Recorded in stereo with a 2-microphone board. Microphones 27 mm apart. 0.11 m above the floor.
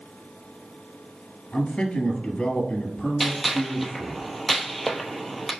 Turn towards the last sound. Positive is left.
turn(degrees=0)  # may be behind; listen again after turning